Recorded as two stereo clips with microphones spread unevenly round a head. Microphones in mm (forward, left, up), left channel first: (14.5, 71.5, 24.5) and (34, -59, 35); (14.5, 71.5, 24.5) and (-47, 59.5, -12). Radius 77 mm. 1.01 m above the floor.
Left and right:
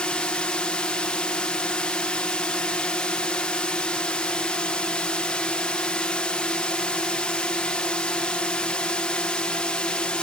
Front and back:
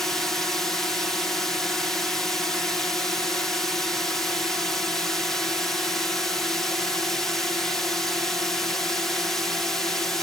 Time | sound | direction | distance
0.0 | a drone | 165° left | ?